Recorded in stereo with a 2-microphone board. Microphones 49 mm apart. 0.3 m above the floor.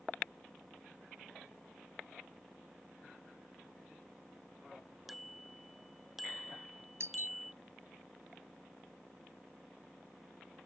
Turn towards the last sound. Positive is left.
turn(degrees=-60)  # may be behind; listen again after turning